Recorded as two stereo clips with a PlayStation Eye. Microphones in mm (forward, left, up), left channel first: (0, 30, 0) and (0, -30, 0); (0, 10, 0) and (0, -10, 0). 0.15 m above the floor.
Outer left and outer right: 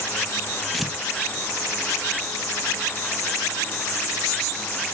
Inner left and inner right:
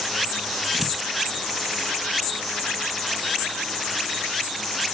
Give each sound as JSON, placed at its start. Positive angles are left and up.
{"t": 0.7, "sound": "tearing paper", "side_deg": 0, "distance_m": 1.1}